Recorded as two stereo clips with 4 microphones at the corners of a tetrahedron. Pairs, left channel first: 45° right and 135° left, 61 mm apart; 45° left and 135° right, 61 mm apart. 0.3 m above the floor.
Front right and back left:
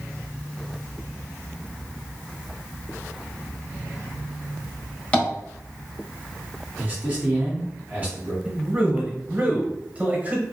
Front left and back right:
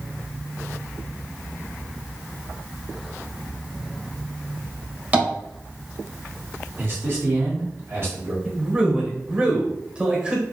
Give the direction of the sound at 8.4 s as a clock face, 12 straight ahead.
6 o'clock.